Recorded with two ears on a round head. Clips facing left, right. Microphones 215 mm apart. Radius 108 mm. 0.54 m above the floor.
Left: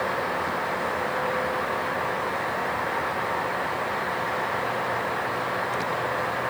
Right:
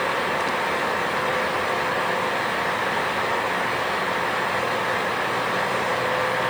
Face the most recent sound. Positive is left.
No sound to turn to.